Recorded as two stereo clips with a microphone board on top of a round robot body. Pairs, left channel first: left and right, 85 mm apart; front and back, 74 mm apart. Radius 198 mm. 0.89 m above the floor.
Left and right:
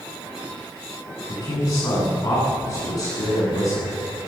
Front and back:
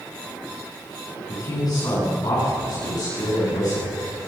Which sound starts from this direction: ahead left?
A man speaking, at 1.3 s.